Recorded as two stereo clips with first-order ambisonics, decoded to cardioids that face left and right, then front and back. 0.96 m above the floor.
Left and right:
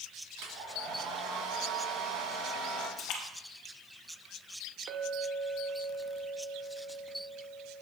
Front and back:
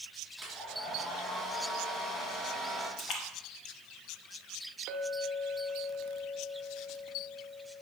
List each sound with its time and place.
0.4 s a hair dryer: 80° right, 2.5 m
3.0 s a splash: 50° left, 1.1 m
4.9 s a clink: 135° right, 1.2 m